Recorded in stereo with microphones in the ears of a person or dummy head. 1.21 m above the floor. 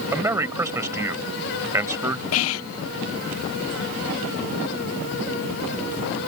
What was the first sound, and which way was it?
A man speaking, 20° right (ahead or behind).